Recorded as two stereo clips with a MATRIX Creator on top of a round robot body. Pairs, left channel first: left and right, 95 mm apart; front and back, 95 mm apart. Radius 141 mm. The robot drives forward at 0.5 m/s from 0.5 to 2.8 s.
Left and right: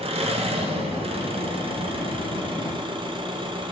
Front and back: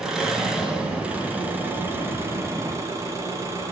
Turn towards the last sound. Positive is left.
turn(degrees=-120)